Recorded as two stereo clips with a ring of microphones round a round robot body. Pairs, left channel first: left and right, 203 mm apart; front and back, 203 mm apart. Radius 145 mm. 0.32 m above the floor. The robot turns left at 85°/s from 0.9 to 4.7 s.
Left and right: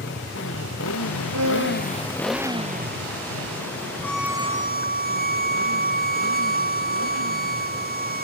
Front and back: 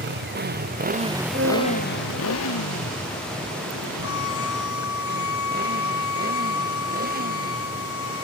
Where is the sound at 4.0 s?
10° left; by 8.2 s 45° right.